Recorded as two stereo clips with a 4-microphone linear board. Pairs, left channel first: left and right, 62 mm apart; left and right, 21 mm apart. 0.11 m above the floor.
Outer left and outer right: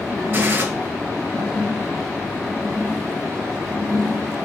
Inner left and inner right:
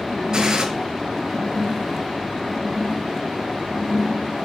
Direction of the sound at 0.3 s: 30° right (ahead or behind).